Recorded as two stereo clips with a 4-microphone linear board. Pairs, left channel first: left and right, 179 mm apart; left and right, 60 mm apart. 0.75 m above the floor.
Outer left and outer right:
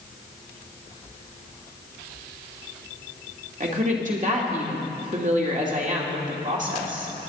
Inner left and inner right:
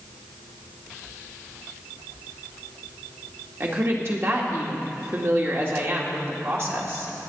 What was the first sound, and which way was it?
A woman speaking, 45° right (ahead or behind).